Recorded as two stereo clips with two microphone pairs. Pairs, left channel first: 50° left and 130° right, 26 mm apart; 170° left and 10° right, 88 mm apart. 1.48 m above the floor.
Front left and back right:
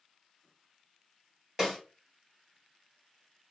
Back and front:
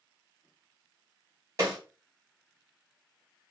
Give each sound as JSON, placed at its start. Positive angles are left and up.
{"t": 1.6, "sound": "a snare drum", "azimuth_deg": -60, "distance_m": 2.5}